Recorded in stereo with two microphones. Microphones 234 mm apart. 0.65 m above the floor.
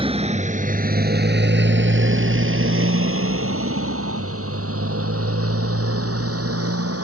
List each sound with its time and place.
0.0 s a motorcycle: 25° right (ahead or behind); by 7.0 s 85° right